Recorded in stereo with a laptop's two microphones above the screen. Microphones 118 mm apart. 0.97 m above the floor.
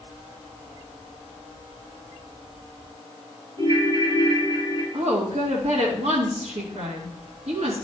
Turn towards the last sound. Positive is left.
turn(degrees=-70)  # may be behind; listen again after turning